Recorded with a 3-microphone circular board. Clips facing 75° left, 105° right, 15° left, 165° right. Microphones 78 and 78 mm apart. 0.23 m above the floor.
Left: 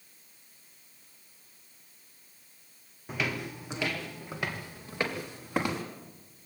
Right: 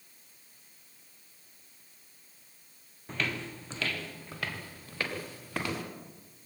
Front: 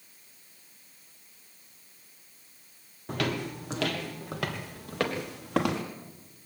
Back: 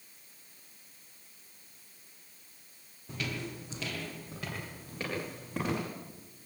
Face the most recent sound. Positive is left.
turn(degrees=5)